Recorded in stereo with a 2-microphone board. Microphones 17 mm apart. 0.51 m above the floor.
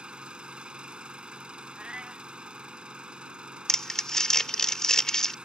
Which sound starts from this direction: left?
Crumpling, at 3.7 s.